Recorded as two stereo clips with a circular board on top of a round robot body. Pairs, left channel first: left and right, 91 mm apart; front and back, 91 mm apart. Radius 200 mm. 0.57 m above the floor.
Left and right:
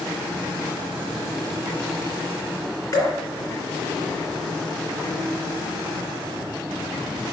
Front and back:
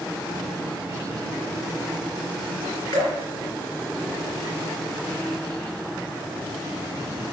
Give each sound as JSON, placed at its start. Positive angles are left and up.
{"t": 2.9, "sound": "dripping", "azimuth_deg": 40, "distance_m": 3.0}